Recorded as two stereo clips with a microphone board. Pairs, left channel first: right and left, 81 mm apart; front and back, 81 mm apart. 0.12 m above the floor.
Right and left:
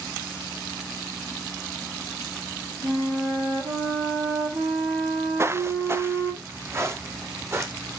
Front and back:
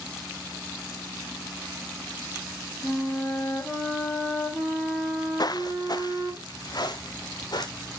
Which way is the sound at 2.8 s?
80° left.